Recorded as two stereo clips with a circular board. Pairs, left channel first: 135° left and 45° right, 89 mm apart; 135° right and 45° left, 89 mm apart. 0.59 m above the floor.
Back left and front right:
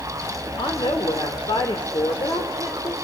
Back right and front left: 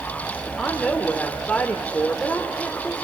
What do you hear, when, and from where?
0.6 s a woman speaking: 145° left, 2 m